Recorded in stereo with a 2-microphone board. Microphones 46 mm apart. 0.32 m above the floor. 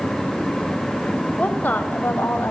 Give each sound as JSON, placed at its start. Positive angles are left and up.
{"t": 1.4, "sound": "a woman speaking", "side_deg": 30, "distance_m": 1.0}